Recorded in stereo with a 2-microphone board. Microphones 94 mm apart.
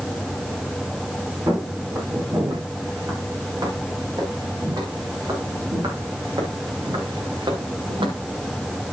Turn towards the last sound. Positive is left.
turn(degrees=-60)  # may be behind; listen again after turning